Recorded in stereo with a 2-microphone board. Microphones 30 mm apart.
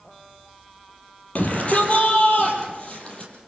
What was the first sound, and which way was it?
A shout, 50° left (ahead or behind).